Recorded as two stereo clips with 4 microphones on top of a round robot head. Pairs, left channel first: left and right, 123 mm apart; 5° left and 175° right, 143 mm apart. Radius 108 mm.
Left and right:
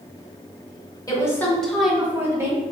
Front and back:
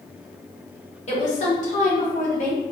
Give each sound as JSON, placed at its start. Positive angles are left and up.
{"t": 1.1, "sound": "a woman speaking", "azimuth_deg": 35, "distance_m": 1.3}